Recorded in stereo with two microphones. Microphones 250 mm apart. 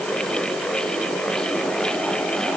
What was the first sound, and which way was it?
Only background noise.